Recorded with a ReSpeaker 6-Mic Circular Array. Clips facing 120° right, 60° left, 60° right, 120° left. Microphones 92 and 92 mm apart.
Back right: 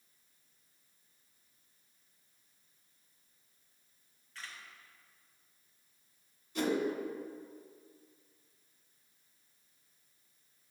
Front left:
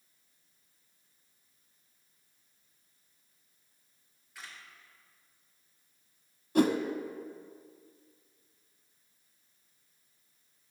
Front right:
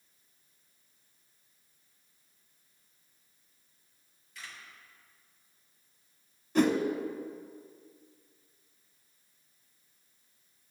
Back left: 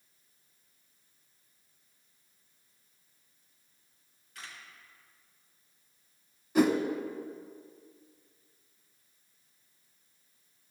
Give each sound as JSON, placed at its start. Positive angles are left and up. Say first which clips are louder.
{"t": 4.3, "sound": "a camera shutter", "louder": "even, even", "azimuth_deg": 135, "distance_m": 2.5}
{"t": 6.5, "sound": "a whoosh", "louder": "front left 7 dB, back left 1 dB", "azimuth_deg": 40, "distance_m": 0.7}